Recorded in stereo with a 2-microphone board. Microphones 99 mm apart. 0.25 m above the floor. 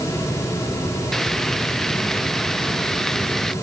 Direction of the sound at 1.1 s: 5° left (ahead or behind).